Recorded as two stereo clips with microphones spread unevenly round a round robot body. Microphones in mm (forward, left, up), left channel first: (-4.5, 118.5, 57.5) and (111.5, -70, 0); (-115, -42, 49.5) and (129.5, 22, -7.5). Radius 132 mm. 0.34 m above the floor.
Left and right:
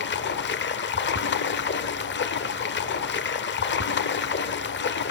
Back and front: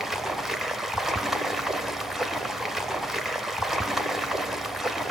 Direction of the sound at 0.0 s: 90° left.